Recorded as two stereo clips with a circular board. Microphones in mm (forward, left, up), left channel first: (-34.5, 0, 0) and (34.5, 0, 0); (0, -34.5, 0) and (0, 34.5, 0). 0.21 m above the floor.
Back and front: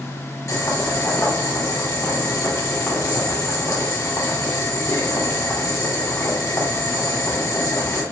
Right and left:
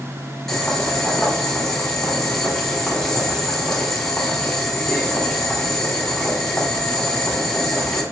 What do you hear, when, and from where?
0.5 s boiling: 170° right, 1.3 m